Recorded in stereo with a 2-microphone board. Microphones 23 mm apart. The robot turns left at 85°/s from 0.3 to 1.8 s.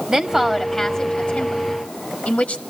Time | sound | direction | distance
0.1 | a woman speaking | 30° right (ahead or behind) | 1.7 m